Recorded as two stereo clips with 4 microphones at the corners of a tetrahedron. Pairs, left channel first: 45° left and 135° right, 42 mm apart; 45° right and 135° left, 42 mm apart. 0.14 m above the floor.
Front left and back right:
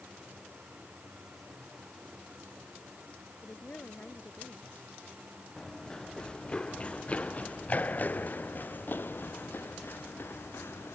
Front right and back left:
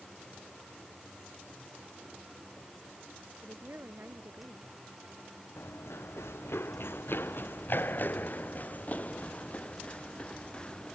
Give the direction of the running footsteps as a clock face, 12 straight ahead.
1 o'clock.